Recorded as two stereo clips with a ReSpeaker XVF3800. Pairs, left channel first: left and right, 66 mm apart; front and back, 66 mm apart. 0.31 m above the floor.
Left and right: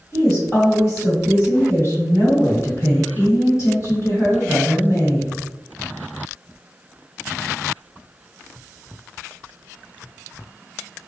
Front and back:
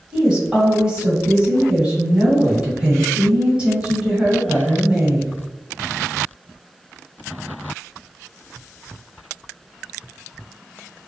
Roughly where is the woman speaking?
Left.